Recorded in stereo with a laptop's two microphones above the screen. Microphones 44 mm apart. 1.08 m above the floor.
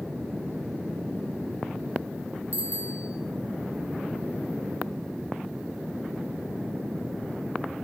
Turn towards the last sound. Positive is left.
turn(degrees=-35)  # may be behind; listen again after turning